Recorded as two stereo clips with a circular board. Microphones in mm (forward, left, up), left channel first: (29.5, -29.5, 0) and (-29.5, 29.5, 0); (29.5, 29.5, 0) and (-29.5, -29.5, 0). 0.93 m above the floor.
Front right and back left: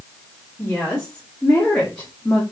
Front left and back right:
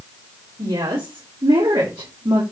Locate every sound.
0.6 s a woman speaking: 120° right, 3 m; by 2.4 s 110° right, 1.8 m